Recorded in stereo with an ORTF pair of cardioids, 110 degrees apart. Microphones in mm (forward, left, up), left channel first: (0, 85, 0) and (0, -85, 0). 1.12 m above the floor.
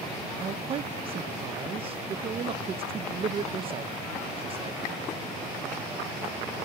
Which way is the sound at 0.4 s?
35° right.